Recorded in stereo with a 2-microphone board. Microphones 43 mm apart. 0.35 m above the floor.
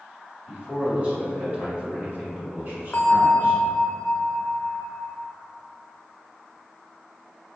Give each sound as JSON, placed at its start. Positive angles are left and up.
{"t": 0.5, "sound": "a man speaking", "side_deg": -25, "distance_m": 1.6}
{"t": 2.9, "sound": "a bell", "side_deg": 40, "distance_m": 0.6}